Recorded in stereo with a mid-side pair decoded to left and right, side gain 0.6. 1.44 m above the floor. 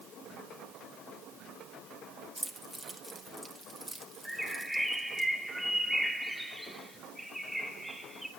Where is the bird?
5° right, 2.5 m.